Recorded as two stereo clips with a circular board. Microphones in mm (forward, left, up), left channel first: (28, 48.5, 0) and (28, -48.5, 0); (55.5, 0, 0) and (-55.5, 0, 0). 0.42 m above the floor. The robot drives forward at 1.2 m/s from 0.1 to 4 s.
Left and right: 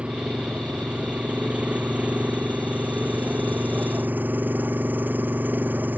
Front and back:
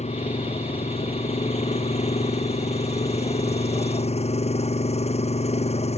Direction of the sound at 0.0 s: 10° right.